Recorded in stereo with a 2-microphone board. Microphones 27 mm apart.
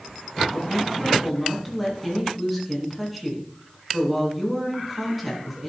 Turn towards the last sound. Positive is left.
turn(degrees=-5)  # may be behind; listen again after turning